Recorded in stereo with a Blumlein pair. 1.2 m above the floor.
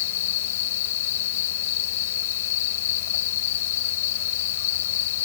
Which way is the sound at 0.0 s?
55° left.